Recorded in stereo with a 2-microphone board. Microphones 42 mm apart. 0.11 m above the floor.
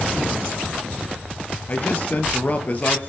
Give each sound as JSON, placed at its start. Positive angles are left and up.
{"t": 1.7, "sound": "a man speaking", "side_deg": 40, "distance_m": 2.5}